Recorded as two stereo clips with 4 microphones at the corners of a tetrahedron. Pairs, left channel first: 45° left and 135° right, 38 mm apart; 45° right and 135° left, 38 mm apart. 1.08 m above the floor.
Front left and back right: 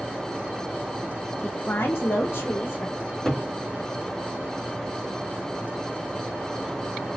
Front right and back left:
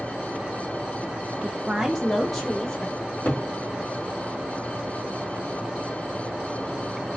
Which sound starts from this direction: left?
A woman speaking, at 1.4 s.